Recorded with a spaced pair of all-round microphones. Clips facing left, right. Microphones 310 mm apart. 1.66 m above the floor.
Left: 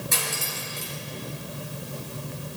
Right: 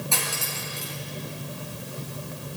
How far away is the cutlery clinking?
About 6.5 m.